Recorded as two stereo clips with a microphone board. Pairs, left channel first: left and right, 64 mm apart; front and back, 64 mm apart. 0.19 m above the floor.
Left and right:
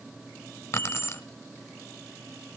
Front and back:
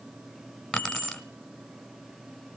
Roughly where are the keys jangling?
Left.